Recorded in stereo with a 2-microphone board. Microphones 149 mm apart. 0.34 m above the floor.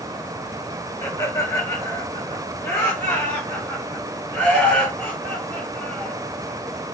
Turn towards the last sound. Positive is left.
turn(degrees=10)  # may be behind; listen again after turning